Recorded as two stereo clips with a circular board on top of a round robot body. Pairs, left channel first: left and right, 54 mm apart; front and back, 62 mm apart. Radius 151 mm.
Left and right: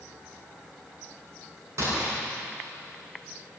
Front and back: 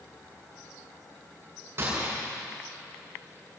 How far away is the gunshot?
About 8.5 m.